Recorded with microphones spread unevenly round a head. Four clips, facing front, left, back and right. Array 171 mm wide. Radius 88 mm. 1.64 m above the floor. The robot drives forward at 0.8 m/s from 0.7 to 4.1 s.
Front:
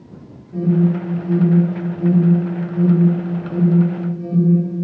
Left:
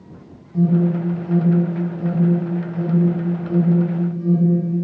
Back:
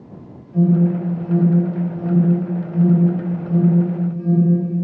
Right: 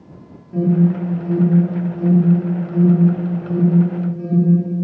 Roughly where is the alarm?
Ahead right.